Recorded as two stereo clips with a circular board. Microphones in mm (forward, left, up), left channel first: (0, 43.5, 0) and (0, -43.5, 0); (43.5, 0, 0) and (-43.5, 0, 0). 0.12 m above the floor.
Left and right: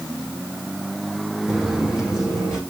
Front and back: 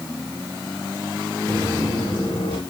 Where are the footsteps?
5° right, 7.5 m.